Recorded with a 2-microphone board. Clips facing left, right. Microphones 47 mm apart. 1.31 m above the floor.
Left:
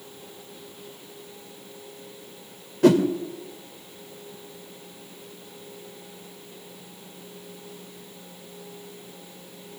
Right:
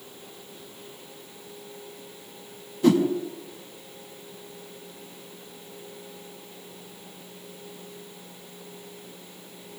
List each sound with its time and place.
2.8 s a whoosh: 65° left (ahead or behind), 1.9 m